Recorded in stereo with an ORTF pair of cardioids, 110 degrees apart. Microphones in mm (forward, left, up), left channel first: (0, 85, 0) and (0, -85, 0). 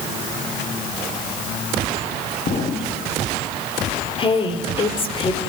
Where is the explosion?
45° left, 3.5 m.